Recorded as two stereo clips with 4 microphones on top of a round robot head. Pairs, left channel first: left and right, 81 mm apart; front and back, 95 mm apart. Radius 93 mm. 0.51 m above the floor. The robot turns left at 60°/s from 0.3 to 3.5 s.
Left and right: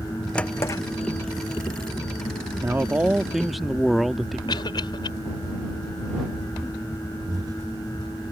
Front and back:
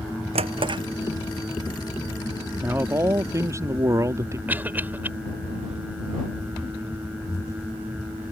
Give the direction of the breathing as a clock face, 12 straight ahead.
2 o'clock.